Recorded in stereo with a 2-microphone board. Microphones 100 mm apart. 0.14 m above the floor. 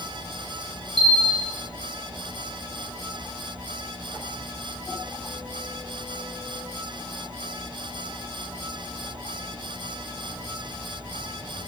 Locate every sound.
1.0 s a bell: 70° left (ahead or behind), 4 m